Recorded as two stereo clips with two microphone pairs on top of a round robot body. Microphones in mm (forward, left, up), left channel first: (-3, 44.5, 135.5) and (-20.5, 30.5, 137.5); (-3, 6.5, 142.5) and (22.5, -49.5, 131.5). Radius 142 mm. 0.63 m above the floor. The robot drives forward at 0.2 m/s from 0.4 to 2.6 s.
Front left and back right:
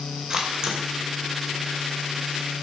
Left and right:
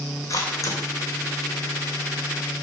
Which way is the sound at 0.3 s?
155° left.